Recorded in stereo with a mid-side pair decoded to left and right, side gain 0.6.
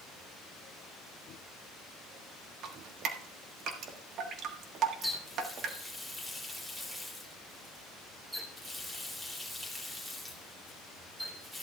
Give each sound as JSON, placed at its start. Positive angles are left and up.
{"t": 2.6, "sound": "dripping", "azimuth_deg": -60, "distance_m": 1.4}
{"t": 5.0, "sound": "a running tap", "azimuth_deg": -10, "distance_m": 3.0}